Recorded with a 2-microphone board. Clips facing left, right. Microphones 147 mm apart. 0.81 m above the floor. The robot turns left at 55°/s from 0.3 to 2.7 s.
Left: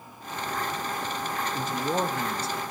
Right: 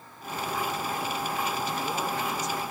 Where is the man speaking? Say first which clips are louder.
Left 3 dB; 95° left, 0.7 m; by 2.6 s 35° left, 0.7 m.